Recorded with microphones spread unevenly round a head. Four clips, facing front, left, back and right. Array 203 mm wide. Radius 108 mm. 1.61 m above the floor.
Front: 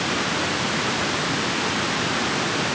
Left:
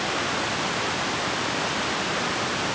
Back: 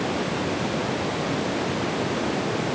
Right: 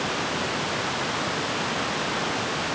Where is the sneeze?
No sneeze in this recording.